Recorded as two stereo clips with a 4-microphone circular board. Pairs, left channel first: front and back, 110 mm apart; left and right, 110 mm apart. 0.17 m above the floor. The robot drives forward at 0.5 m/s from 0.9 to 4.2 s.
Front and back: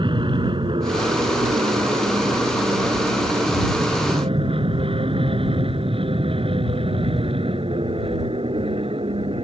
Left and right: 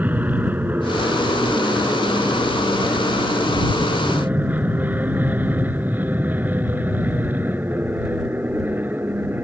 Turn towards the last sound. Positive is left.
turn(degrees=-160)